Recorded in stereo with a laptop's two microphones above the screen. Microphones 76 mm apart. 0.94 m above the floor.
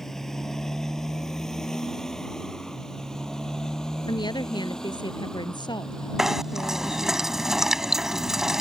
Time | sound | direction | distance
0.0 | a motorcycle | 5° left (ahead or behind) | ?
4.1 | a woman speaking | 80° left | ?
6.2 | knocking | 5° right (ahead or behind) | ?